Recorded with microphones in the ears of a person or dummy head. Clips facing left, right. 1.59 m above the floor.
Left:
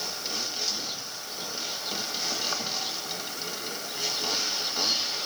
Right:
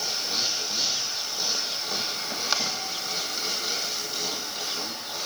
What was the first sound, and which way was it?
Only background noise.